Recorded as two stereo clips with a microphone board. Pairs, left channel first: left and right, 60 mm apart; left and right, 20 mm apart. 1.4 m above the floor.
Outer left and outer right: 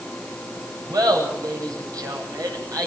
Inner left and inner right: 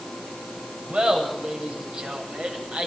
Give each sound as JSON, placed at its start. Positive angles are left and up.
{"t": 0.9, "sound": "laughter", "side_deg": -75, "distance_m": 9.0}